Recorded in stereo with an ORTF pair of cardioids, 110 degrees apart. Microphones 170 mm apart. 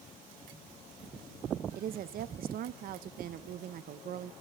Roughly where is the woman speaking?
Ahead right.